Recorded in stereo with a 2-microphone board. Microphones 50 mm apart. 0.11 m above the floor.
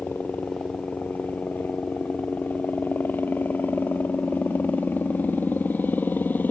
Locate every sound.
0.0 s a helicopter: 40° left (ahead or behind)